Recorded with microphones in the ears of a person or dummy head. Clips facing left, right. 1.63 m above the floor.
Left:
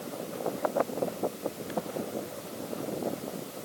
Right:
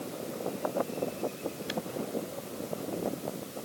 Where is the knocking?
No knocking in this recording.